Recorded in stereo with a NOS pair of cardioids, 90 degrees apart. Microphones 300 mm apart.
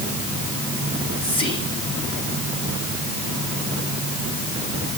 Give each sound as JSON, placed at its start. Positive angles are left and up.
{"t": 0.9, "sound": "whispering", "azimuth_deg": 15, "distance_m": 10.0}